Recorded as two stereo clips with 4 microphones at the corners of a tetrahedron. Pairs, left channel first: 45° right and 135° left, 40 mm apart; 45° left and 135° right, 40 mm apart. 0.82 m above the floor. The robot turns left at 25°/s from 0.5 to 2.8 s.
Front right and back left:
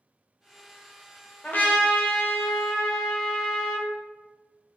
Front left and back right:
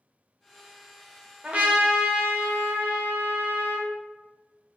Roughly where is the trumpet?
Right.